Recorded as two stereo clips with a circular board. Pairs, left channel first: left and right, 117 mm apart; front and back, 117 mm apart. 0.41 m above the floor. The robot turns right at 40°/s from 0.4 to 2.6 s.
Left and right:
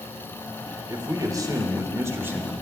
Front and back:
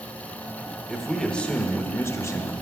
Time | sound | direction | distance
0.9 | a man speaking | 95° right | 0.9 m